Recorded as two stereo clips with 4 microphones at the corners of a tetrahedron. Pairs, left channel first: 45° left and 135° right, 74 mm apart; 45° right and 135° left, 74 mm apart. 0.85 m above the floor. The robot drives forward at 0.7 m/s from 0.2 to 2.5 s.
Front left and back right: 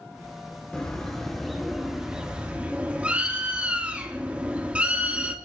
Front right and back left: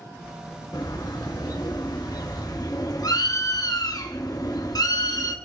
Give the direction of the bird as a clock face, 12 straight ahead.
1 o'clock.